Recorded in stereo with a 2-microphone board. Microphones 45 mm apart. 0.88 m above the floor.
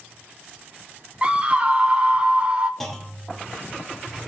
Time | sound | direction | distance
1.2 | a scream | 25° right (ahead or behind) | 0.6 m
2.8 | a clunk | 5° left (ahead or behind) | 0.9 m